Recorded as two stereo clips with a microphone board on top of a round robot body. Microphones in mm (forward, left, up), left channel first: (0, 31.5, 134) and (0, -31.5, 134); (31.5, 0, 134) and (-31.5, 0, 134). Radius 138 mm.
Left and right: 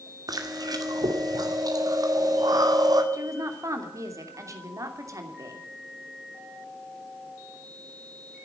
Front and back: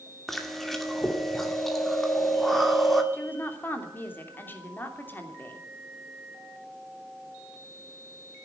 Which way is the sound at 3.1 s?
60° right.